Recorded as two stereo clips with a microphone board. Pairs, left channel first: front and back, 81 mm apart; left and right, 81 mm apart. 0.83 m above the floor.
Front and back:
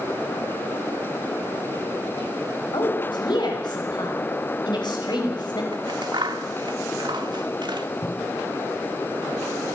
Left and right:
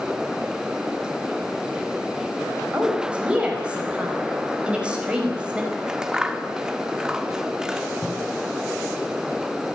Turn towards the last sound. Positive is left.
turn(degrees=-5)